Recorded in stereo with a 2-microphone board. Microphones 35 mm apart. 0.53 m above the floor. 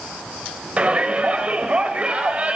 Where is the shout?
40° right (ahead or behind), 2.5 m.